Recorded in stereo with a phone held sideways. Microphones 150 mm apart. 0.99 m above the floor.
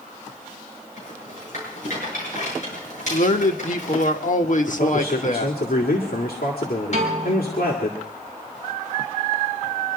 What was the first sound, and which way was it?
A rattle, 55° left (ahead or behind).